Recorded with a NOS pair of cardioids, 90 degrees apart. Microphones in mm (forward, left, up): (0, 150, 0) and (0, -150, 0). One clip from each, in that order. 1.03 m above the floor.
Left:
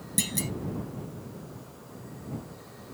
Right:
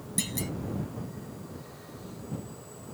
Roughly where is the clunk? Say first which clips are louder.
Left 3 dB; ahead left.